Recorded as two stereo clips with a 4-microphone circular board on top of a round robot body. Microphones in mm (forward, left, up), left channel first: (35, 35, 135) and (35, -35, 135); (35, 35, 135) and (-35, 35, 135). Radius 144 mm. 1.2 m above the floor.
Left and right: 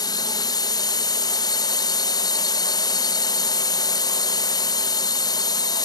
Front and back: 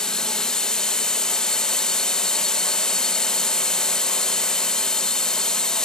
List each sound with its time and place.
0.0 s a drone: 80° left